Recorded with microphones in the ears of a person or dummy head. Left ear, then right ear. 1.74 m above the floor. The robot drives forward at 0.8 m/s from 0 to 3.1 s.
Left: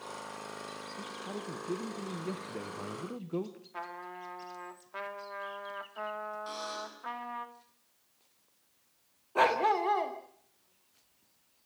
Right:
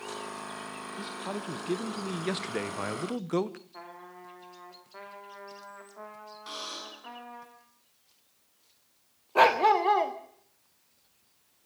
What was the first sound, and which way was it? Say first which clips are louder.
A man speaking: right 6 dB; 25° right (ahead or behind).